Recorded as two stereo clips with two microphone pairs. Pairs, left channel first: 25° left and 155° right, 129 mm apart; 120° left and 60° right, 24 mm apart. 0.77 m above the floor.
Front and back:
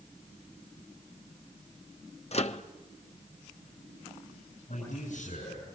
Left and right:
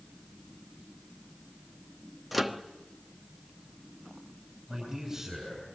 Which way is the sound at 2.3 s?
30° left.